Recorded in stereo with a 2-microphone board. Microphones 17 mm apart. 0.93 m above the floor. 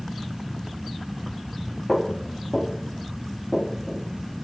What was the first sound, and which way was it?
Footsteps, 15° left (ahead or behind).